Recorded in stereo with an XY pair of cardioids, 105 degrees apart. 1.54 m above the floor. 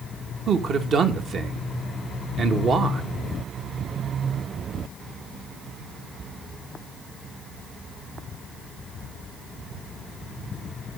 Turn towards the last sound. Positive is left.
turn(degrees=-55)